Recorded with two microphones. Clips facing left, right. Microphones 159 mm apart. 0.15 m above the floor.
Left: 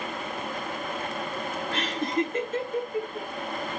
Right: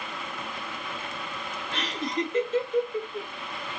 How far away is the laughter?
About 2 m.